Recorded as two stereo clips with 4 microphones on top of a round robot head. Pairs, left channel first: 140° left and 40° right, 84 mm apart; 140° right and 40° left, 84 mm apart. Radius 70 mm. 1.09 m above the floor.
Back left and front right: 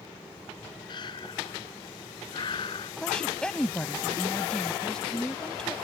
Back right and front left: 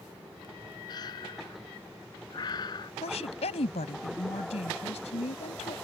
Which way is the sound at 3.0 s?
140° right.